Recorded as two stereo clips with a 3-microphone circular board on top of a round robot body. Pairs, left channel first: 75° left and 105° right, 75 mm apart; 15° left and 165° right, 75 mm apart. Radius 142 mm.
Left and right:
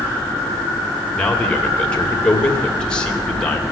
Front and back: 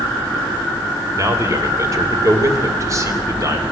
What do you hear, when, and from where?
1.1 s a man speaking: 150° left, 2.5 m